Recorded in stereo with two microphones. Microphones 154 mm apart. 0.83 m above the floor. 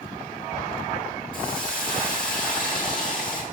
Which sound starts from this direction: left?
A hiss, at 1.3 s.